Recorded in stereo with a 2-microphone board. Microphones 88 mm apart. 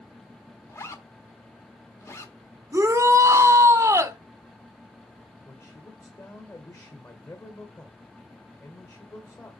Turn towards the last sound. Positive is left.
turn(degrees=40)  # may be behind; listen again after turning